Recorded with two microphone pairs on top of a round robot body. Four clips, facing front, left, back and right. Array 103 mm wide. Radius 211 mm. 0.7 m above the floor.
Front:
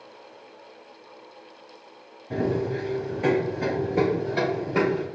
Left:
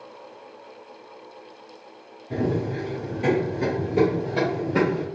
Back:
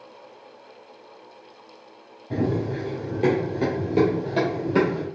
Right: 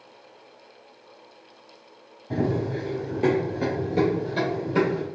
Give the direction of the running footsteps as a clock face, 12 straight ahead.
3 o'clock.